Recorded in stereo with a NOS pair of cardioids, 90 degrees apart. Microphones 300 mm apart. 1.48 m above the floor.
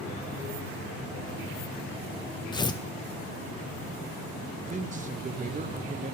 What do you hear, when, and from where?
2.5 s tearing paper: 15° left, 0.6 m
4.5 s a man speaking: 25° right, 1.3 m